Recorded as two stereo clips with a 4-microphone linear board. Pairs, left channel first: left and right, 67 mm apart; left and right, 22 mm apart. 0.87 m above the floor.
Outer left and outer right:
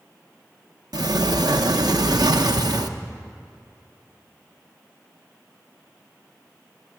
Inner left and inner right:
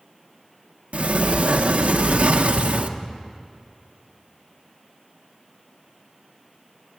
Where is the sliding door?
80° right, 0.6 m.